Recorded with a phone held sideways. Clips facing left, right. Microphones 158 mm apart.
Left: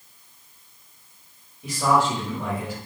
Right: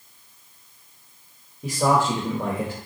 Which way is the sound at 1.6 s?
40° right (ahead or behind).